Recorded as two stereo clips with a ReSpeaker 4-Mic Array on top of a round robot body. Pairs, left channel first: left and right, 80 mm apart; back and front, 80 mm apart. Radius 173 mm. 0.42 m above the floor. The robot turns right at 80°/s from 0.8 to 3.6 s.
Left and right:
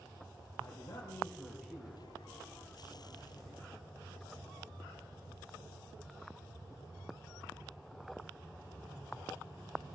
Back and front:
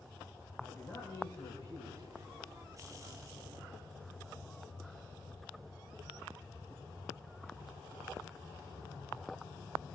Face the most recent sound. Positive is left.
turn(degrees=-20)